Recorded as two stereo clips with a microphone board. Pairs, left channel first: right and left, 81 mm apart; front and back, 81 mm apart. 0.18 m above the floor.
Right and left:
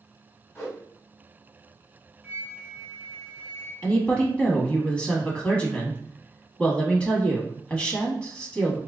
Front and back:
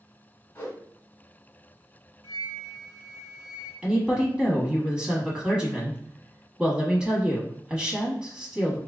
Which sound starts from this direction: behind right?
A woman speaking, at 3.8 s.